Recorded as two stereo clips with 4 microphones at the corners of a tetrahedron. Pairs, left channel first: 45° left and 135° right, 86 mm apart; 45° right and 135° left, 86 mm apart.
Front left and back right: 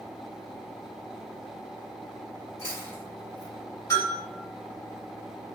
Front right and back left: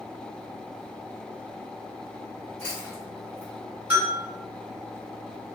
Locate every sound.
2.6 s chewing: 30° left, 1.8 m
3.9 s a bell: 75° left, 1.5 m